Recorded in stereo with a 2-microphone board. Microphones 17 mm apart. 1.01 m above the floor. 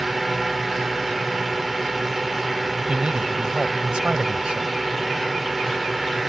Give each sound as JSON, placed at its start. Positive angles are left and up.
{"t": 0.0, "sound": "a drone", "side_deg": -10}
{"t": 2.9, "sound": "a man speaking", "side_deg": -65}